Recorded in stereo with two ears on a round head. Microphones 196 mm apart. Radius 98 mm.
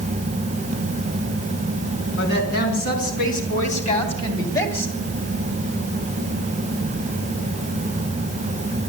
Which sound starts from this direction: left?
A woman speaking, at 2.2 s.